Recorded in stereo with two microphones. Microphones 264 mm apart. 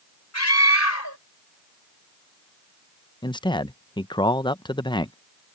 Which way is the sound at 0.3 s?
85° left.